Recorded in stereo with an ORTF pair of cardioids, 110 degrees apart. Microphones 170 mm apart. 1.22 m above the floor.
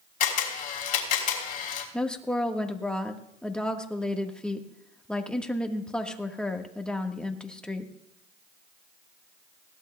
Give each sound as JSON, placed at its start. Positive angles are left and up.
{"t": 0.2, "sound": "a camera shutter", "azimuth_deg": 60, "distance_m": 3.0}
{"t": 1.9, "sound": "a woman speaking", "azimuth_deg": 5, "distance_m": 1.5}